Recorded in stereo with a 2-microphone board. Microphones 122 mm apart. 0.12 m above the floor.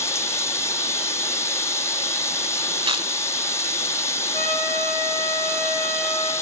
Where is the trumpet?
45° right (ahead or behind), 10 m.